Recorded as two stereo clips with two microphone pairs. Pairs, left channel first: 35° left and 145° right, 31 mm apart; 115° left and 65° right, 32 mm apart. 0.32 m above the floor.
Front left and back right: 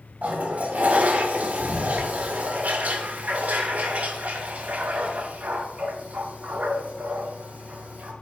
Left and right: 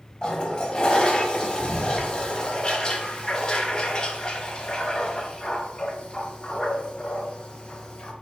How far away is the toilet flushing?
About 0.6 m.